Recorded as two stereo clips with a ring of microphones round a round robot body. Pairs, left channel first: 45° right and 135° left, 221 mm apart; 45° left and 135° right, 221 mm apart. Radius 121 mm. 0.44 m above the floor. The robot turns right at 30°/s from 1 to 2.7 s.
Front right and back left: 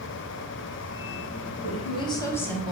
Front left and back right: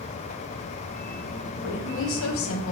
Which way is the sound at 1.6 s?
10° left.